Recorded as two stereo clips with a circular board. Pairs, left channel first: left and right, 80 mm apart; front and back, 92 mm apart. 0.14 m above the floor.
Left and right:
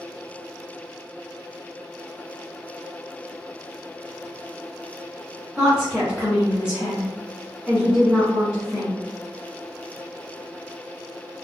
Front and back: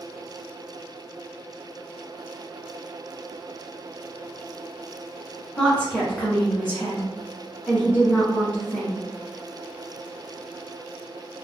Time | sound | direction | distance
5.6 | a woman speaking | 40° right | 1.5 m